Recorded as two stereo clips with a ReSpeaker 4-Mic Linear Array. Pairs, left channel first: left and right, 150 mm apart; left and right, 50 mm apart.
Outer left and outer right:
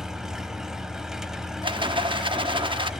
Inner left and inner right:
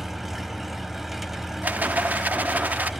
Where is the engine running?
5° right (ahead or behind), 0.9 m.